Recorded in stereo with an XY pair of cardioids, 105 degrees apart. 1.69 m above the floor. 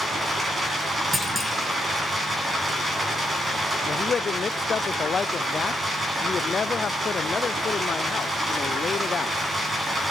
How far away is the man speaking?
About 0.5 m.